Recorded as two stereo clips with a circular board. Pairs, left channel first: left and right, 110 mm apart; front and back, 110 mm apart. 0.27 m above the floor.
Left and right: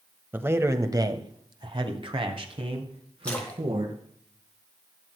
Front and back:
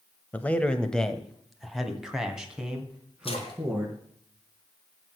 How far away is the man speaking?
About 1.2 m.